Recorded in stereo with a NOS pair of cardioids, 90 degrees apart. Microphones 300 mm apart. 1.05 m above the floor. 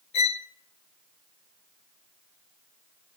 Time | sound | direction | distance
0.1 | a violin | 65° left | 1.2 m